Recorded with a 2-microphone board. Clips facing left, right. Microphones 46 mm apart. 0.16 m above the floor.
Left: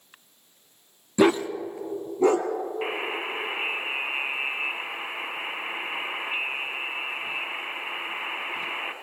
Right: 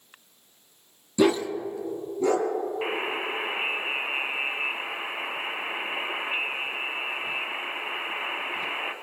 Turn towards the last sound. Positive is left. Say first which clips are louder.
# right 1 dB
turn(degrees=5)  # may be behind; listen again after turning